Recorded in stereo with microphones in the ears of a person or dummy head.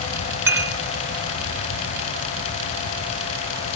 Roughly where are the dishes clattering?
Centre.